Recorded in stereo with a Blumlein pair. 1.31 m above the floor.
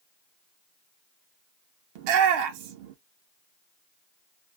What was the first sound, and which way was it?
A shout, 45° right.